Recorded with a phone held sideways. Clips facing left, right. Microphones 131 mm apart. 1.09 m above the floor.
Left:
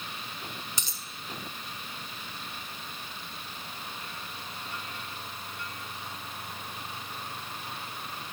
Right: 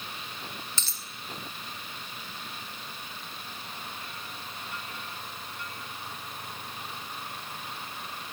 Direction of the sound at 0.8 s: 15° left (ahead or behind).